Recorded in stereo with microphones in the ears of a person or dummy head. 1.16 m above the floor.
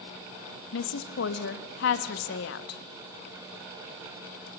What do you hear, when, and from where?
0.7 s a woman speaking: 70° left (ahead or behind), 1.4 m